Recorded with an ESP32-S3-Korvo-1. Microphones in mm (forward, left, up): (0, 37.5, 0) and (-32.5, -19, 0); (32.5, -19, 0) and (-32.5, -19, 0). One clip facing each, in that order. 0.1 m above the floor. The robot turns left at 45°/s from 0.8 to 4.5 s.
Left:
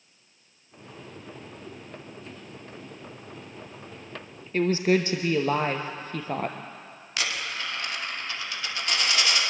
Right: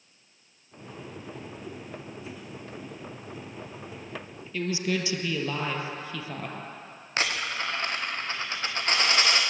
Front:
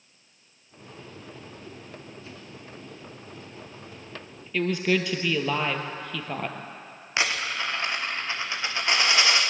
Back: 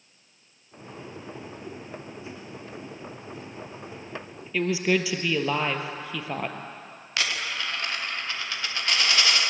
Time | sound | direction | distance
4.5 | a woman speaking | 95° left | 2 m
7.2 | a dropped coin | 65° right | 4 m